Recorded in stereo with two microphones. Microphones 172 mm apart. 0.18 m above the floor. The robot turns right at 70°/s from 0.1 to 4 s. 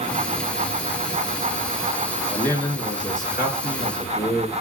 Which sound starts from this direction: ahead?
A man speaking, at 2.3 s.